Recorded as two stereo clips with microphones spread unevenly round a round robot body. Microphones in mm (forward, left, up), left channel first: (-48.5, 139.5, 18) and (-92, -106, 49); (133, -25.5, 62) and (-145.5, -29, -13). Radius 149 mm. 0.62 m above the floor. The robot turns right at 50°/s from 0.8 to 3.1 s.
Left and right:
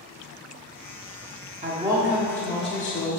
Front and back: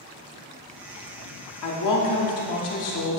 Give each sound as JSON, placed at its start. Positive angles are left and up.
{"t": 1.6, "sound": "a woman speaking", "azimuth_deg": -35, "distance_m": 1.4}